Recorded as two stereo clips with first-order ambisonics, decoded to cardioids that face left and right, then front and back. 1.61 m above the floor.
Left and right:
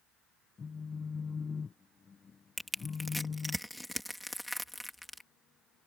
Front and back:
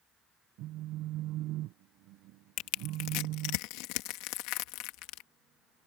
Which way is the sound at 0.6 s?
160° left.